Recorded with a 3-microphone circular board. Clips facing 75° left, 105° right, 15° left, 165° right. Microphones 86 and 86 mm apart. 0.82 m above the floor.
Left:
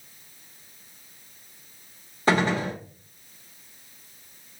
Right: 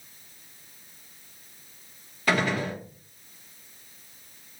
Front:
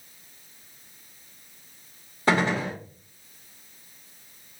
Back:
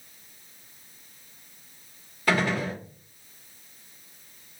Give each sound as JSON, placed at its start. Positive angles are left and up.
{"t": 2.3, "sound": "a gunshot", "azimuth_deg": 50, "distance_m": 0.9}